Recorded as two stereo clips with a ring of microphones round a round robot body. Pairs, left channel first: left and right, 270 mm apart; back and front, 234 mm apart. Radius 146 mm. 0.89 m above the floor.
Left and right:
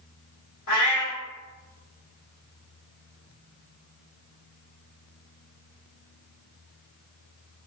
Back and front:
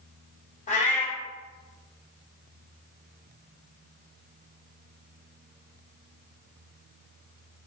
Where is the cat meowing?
120° left, 1.7 m.